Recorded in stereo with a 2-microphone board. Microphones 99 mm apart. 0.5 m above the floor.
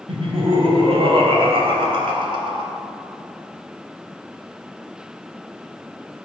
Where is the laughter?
70° right (ahead or behind), 3.5 m; by 2.7 s 55° right (ahead or behind), 3 m.